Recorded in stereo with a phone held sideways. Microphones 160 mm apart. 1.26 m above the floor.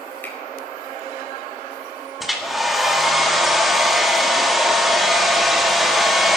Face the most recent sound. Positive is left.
turn(degrees=0)  # may be behind; listen again after turning